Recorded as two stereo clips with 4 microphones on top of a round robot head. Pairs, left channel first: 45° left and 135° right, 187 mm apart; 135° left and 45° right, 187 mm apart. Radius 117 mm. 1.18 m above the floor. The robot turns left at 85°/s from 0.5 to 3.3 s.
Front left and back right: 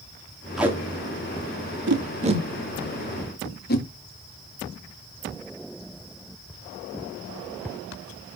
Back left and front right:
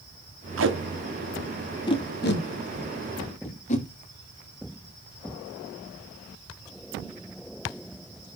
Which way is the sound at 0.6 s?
45° right.